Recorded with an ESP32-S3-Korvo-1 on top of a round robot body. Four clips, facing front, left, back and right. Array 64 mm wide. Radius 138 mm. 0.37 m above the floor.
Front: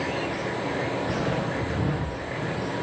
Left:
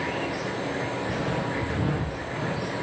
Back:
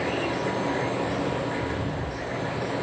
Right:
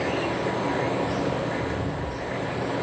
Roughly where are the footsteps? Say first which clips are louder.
Right 2 dB, even; ahead left.